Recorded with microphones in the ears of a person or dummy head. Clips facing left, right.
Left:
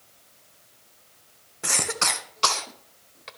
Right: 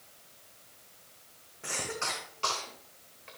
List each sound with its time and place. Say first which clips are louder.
1.6 s a cough: left 6 dB; 75° left (ahead or behind), 0.9 m